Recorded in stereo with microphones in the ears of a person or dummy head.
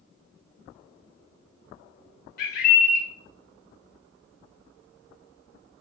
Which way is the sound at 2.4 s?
45° left (ahead or behind).